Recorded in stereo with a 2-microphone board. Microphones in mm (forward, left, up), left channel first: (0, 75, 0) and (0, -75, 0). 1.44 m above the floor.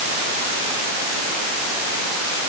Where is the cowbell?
I don't hear a cowbell.